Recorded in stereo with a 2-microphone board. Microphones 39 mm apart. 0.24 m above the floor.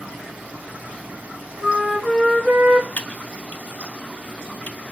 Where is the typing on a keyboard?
40° left (ahead or behind), 0.6 m.